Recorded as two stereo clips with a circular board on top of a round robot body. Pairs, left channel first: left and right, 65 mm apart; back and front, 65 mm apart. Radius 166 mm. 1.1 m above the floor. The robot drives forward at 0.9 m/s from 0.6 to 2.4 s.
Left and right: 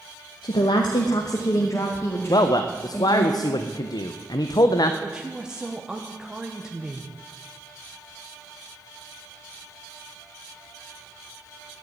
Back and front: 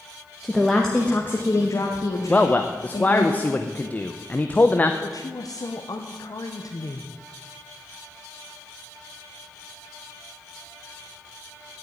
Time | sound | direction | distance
0.4 | a woman speaking | 90° left | 1.0 m
2.3 | a man speaking | 105° left | 0.7 m
5.0 | a woman speaking | 170° right | 1.1 m